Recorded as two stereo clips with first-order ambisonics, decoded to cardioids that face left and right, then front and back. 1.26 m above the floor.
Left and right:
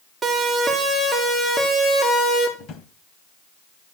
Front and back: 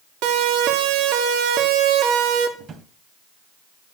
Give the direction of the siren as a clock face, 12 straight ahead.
6 o'clock.